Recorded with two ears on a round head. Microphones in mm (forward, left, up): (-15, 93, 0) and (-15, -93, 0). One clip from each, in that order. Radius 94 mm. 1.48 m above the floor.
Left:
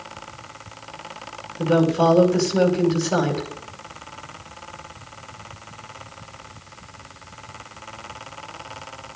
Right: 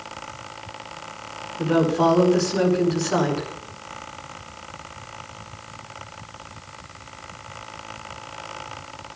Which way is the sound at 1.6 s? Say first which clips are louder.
Left 1 dB; 5° right (ahead or behind).